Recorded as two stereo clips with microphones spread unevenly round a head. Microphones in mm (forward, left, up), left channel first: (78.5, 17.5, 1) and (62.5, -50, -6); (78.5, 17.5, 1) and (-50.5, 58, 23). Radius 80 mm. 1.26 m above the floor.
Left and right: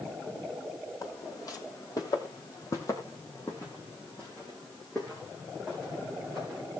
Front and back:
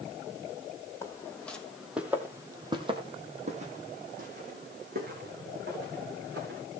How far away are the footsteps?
About 2.5 m.